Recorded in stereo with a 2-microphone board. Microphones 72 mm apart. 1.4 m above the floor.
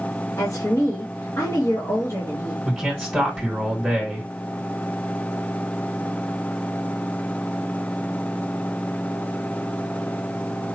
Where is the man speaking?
Centre (ahead or behind), 2.5 m.